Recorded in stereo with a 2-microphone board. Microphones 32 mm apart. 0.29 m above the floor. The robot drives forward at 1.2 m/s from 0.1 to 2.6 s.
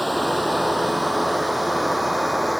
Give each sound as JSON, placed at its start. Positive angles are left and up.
{"t": 0.0, "sound": "running water", "side_deg": 0}